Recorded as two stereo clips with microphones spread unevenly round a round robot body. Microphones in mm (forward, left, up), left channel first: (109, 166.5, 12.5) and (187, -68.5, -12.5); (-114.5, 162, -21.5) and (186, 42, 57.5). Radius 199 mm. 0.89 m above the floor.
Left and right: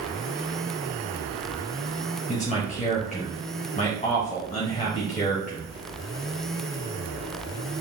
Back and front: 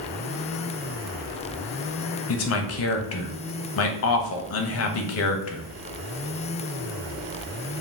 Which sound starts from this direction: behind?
A man speaking, at 2.3 s.